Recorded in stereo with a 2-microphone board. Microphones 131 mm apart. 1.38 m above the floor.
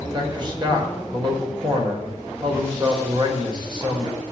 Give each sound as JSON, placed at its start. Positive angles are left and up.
{"t": 0.1, "sound": "a man speaking", "side_deg": -35, "distance_m": 5.0}